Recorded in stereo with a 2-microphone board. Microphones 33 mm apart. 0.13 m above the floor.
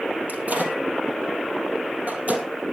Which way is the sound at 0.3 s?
45° right (ahead or behind).